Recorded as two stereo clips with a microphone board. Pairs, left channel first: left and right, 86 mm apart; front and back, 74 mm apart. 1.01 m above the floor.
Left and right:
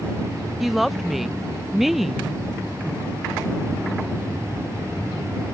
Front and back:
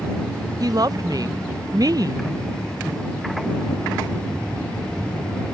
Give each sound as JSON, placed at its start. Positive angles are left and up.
{"t": 0.6, "sound": "a woman speaking", "azimuth_deg": 180}